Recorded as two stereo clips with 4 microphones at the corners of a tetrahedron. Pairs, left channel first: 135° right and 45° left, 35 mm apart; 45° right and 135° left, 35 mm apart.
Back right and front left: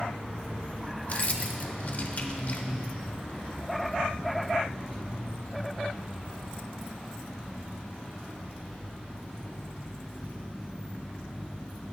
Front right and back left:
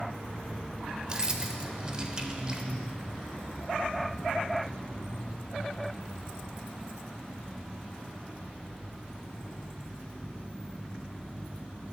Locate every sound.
1.1 s keys jangling: 165° right, 0.8 m